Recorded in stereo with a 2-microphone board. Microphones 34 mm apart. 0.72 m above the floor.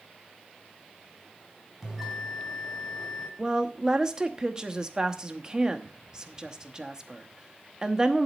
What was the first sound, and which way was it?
A bell, centre (ahead or behind).